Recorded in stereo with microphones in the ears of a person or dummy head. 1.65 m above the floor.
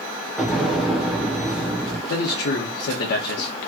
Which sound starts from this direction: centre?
An explosion, at 0.4 s.